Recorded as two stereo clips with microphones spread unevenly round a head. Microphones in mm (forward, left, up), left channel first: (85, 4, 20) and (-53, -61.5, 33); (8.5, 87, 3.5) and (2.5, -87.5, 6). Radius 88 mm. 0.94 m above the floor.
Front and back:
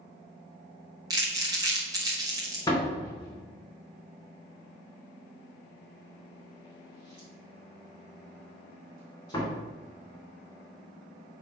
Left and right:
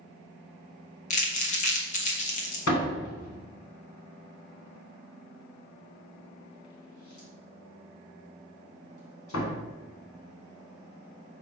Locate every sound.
1.1 s crumpling: 135° left, 1.6 m
2.7 s a door slam: 100° left, 3 m